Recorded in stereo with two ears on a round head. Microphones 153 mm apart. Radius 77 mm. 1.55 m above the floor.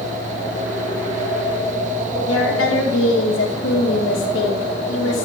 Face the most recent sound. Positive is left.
turn(degrees=90)